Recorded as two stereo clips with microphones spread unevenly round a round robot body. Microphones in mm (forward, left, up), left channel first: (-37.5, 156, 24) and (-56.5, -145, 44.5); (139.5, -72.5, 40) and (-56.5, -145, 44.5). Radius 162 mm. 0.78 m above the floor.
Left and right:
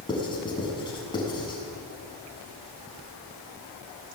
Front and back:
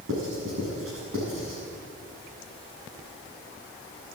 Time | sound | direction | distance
0.1 | writing | 160° left | 6.5 m